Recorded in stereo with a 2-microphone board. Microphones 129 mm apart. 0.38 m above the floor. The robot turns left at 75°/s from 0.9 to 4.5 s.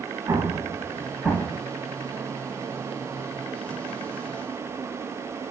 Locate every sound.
0.3 s an explosion: 25° right (ahead or behind), 0.5 m; by 1.6 s 25° left (ahead or behind), 0.5 m